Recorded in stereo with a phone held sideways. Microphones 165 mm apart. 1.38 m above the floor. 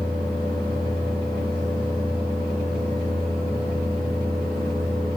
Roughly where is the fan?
Right.